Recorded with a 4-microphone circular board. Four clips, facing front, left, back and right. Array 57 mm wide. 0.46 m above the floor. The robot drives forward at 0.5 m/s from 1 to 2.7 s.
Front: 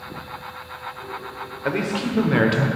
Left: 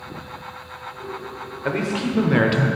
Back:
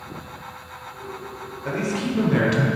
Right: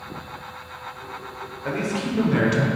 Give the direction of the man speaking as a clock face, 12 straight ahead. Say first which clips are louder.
Left 2 dB, front 2 dB; 11 o'clock.